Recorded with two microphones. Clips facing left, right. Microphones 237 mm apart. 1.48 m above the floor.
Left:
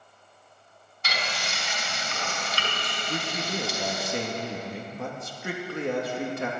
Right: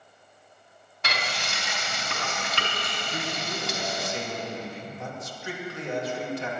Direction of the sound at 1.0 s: 80° right.